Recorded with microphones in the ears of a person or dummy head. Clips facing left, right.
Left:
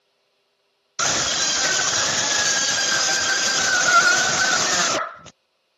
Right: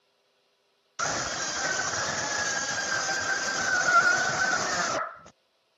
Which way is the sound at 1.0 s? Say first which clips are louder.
Left 5 dB; 50° left (ahead or behind).